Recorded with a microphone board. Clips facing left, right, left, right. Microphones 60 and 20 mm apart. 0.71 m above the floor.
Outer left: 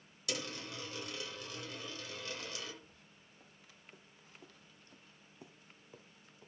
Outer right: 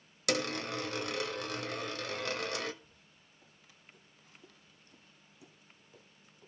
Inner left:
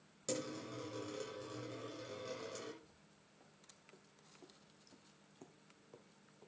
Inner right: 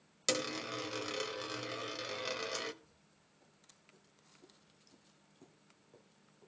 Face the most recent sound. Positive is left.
turn(degrees=20)  # may be behind; listen again after turning